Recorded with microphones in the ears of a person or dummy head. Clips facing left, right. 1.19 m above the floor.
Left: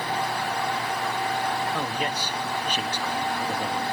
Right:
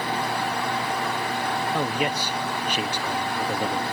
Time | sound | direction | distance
1.7 | a man speaking | 15° right (ahead or behind) | 1.2 m